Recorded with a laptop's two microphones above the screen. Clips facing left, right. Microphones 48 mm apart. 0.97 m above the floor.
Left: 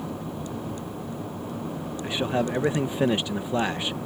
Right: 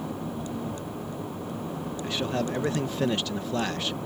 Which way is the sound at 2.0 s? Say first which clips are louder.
Left 3 dB; 25° left (ahead or behind).